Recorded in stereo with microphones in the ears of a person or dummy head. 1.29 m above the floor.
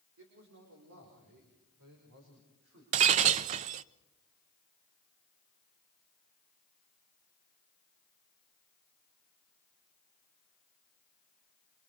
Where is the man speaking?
80° right, 4 m; by 2.8 s 65° right (ahead or behind), 6 m.